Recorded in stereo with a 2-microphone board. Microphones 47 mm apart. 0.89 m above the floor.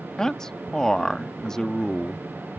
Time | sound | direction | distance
0.2 | a man speaking | 15° left (ahead or behind) | ?